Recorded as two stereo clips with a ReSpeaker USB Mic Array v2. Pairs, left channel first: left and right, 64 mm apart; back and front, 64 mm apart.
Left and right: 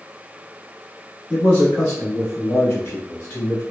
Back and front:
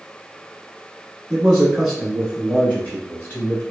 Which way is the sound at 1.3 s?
50° left.